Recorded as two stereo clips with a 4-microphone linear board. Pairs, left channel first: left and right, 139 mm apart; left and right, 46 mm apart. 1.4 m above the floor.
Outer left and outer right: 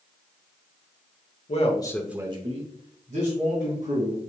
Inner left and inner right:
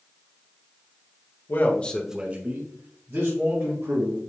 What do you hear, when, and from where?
1.5 s a man speaking: 55° left (ahead or behind), 1.1 m; by 4.2 s 75° right (ahead or behind), 3.5 m